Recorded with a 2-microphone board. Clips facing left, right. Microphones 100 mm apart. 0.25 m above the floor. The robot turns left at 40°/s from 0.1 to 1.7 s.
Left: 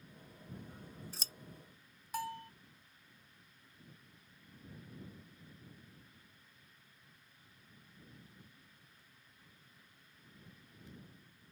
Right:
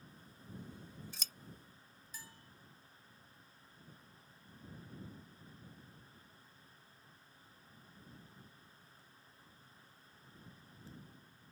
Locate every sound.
0.5 s scissors: 55° left (ahead or behind); by 1.3 s 30° left (ahead or behind)
2.1 s a bell: 65° left (ahead or behind)